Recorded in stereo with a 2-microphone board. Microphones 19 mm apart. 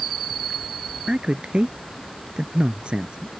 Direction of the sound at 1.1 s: 65° right (ahead or behind).